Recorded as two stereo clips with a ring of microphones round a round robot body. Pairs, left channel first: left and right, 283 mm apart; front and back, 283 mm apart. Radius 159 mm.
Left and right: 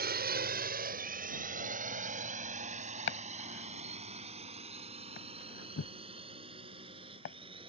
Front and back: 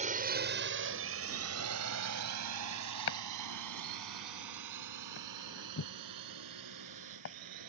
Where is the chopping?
40° left.